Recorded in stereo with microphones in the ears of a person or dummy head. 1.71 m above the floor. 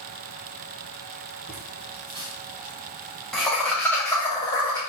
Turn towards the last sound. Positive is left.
turn(degrees=20)  # may be behind; listen again after turning